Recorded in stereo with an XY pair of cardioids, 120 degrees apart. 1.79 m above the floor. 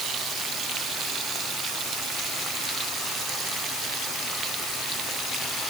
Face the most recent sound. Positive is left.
No sound to turn to.